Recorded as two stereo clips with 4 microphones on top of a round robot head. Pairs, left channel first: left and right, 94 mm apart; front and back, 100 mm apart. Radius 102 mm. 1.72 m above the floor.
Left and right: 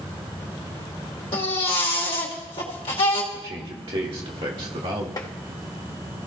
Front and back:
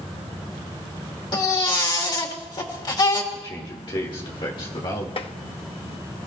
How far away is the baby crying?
About 2.5 m.